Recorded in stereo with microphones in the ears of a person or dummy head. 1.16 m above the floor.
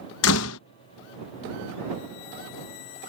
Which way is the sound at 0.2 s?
75° left (ahead or behind).